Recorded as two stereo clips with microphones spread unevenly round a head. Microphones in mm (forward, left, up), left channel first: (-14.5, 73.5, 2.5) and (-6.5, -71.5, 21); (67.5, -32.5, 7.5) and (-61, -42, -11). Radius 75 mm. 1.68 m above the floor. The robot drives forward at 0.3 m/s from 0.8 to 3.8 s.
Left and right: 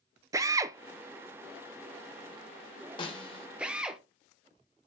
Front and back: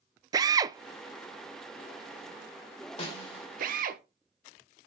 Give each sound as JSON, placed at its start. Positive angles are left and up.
{"t": 0.3, "sound": "a drill", "azimuth_deg": -125, "distance_m": 0.6}
{"t": 3.0, "sound": "a snare drum", "azimuth_deg": 35, "distance_m": 2.0}